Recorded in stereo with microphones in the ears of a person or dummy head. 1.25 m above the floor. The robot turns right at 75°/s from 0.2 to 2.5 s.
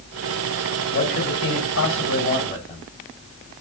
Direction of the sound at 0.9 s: 40° left.